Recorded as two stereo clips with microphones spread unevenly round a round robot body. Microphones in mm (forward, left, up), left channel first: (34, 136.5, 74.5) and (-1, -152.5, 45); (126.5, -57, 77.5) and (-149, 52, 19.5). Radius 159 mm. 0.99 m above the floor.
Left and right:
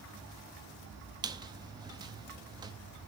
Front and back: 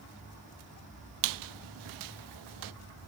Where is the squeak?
175° right, 0.5 m.